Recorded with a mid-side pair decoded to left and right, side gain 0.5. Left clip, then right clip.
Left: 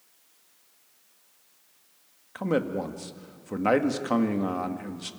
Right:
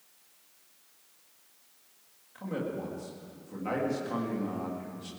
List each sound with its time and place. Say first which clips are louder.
2.4 s a man speaking: left 8 dB; 70° left, 2 m